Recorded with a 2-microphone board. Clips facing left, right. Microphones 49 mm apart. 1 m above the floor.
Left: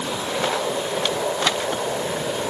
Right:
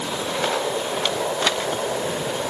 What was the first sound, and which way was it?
Only background noise.